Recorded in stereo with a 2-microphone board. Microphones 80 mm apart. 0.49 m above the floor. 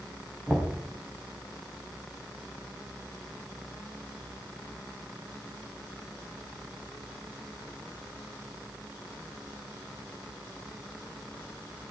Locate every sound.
0.5 s knocking: 5° right (ahead or behind), 3.5 m